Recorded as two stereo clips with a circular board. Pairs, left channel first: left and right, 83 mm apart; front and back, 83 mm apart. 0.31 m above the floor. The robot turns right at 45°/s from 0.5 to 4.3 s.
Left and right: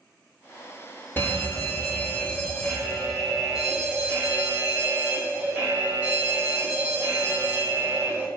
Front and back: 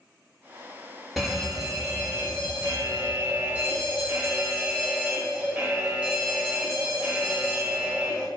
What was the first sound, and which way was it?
A fire alarm, 90° left.